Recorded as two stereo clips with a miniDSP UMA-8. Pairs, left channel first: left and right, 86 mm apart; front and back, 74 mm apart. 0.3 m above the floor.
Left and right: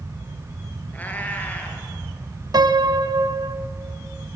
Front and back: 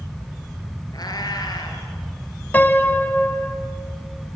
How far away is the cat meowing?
About 3 m.